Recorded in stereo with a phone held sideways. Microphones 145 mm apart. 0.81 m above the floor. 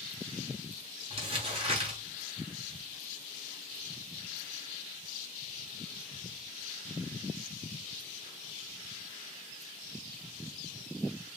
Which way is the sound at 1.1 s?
40° right (ahead or behind).